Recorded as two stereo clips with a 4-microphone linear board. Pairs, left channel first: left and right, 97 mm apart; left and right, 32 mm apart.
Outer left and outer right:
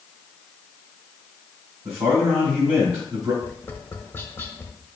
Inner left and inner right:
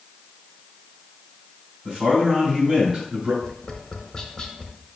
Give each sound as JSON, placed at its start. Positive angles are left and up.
{"t": 1.9, "sound": "a man speaking", "side_deg": -30, "distance_m": 4.0}
{"t": 3.4, "sound": "tapping", "side_deg": 20, "distance_m": 0.8}